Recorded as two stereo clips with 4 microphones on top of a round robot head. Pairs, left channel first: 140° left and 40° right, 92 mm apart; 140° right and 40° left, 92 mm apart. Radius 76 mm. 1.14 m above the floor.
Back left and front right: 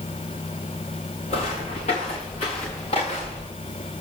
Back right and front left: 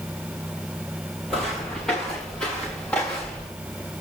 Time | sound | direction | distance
1.3 | footsteps | 135° left | 5 m